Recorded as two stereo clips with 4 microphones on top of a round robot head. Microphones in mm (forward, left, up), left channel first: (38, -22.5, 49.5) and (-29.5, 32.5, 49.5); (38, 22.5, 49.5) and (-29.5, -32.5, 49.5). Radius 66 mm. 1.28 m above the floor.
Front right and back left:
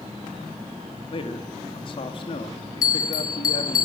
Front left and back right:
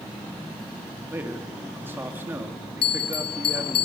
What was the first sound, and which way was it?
A man speaking, 70° right.